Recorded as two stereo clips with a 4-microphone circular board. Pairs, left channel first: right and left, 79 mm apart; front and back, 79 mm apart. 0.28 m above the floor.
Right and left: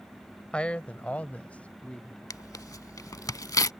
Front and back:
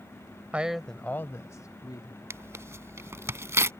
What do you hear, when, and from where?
0.5 s a man speaking: 140° right; by 2.2 s 15° right
2.3 s tearing paper: 130° right